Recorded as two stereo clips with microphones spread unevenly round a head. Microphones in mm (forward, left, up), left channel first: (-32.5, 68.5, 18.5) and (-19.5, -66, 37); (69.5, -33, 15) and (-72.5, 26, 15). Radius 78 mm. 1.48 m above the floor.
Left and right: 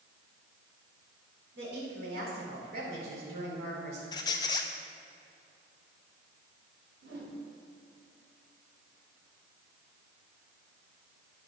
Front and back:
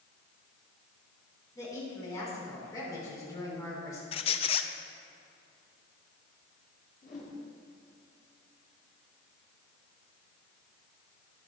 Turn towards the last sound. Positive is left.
turn(degrees=-65)